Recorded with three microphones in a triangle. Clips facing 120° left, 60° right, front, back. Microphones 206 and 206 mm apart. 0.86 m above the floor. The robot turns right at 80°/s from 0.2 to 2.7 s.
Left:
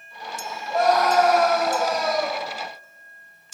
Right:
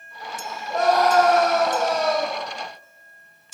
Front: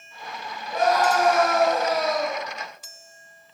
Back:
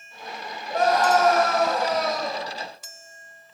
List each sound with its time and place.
0.7 s a scream: 140° right, 6 m; by 2.4 s straight ahead, 6 m